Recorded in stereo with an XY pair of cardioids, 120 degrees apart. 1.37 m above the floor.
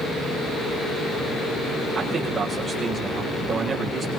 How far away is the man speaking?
About 7.5 m.